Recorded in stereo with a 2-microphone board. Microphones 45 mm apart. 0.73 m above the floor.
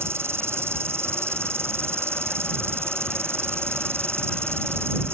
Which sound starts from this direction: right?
An insect, at 0.0 s.